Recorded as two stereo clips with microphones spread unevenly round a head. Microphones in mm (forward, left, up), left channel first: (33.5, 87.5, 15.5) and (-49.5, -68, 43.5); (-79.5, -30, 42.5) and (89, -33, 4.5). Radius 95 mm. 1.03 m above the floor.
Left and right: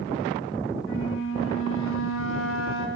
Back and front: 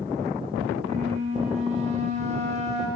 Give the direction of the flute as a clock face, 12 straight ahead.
10 o'clock.